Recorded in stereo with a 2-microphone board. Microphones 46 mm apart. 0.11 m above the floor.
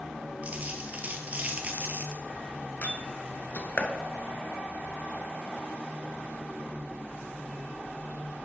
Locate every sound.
0.4 s a dropped coin: 30° right (ahead or behind), 1.2 m
2.8 s a door slam: 35° left (ahead or behind), 0.9 m